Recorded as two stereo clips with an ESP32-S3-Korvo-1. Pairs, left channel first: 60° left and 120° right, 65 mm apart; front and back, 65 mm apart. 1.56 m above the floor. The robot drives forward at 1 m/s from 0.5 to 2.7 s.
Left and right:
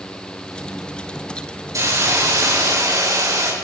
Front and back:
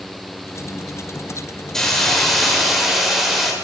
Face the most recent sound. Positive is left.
turn(degrees=-90)